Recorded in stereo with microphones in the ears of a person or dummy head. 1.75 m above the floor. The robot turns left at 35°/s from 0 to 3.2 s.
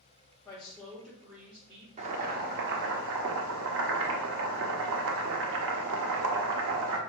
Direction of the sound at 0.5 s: 15° left.